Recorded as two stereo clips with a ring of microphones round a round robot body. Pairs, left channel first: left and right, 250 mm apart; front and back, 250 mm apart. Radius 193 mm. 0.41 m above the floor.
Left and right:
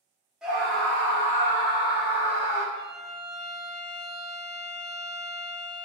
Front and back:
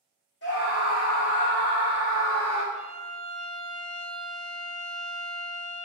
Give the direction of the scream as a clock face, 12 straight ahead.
12 o'clock.